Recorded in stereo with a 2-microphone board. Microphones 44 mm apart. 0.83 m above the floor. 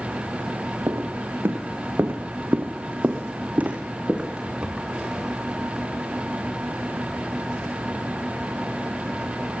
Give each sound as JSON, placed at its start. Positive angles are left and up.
{"t": 0.9, "sound": "footsteps", "side_deg": -75, "distance_m": 2.5}